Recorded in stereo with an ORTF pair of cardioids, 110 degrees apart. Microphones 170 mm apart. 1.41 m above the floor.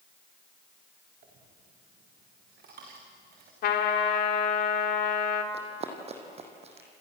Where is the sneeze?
No sneeze in this recording.